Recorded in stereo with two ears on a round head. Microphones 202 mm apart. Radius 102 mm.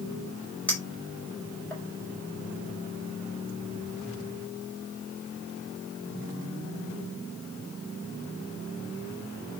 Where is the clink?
5° left (ahead or behind), 5.5 m.